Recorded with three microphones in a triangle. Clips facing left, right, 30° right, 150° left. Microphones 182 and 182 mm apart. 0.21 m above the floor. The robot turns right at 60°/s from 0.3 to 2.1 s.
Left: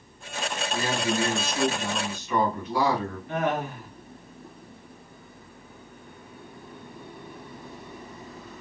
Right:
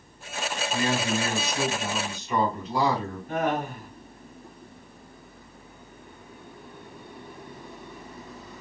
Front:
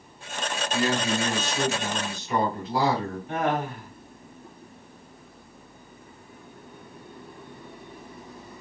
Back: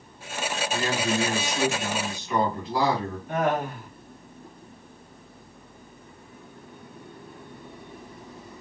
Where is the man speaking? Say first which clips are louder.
Right 1 dB, front 2 dB; 155° right, 1.9 m; by 3.2 s 75° right, 1.9 m.